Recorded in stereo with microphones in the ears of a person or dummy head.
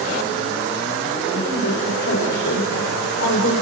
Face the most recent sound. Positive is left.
turn(degrees=55)  # may be behind; listen again after turning